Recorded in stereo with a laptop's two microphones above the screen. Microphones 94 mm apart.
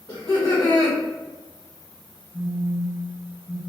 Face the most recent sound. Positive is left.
turn(degrees=-20)  # may be behind; listen again after turning